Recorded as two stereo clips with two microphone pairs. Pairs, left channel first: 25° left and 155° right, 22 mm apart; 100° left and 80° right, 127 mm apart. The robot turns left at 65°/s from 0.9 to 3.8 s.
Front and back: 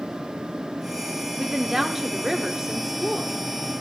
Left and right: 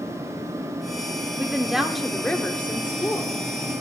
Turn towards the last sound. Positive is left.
turn(degrees=70)